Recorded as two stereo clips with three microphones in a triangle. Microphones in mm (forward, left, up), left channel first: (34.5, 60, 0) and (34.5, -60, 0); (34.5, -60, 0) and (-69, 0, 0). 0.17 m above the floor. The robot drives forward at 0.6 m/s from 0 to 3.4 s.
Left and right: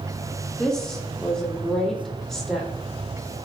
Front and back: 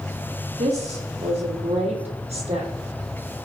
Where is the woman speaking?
175° left, 4.5 m.